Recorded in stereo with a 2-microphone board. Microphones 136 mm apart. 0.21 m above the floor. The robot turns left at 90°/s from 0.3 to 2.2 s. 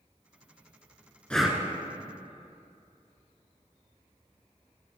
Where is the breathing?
10° left (ahead or behind), 0.5 m; by 1.6 s 20° right (ahead or behind), 0.5 m.